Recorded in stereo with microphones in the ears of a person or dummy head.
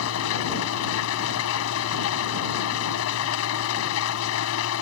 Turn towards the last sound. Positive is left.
turn(degrees=85)